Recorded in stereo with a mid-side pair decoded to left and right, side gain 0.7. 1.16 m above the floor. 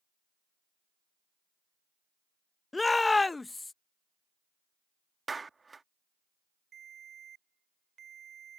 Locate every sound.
2.7 s a shout: 15° left
5.3 s a clap: 20° right
6.7 s a ringtone: 40° right